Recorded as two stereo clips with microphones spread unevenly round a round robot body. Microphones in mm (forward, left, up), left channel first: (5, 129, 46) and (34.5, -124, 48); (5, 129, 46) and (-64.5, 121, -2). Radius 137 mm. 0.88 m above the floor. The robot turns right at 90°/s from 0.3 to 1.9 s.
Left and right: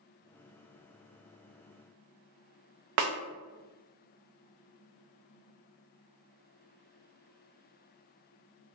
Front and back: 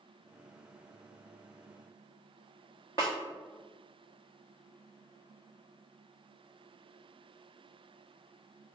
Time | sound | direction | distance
3.0 | a snare drum | 70° right | 0.5 m